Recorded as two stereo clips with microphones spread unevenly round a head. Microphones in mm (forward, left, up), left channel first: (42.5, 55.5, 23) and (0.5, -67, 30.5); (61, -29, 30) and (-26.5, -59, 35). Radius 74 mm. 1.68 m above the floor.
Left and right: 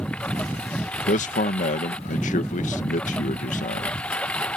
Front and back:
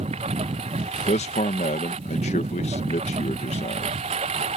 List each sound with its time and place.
0.0 s a lawn mower: 155° left
1.1 s a man speaking: 40° left